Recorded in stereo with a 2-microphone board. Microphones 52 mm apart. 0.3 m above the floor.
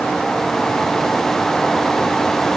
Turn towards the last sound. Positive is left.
No sound to turn to.